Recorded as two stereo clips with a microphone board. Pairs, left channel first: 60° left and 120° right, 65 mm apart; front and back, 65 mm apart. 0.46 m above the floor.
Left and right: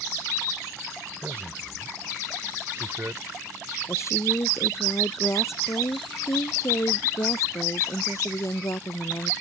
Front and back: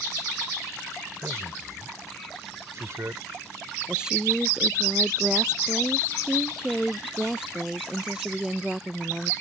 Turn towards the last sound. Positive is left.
turn(degrees=105)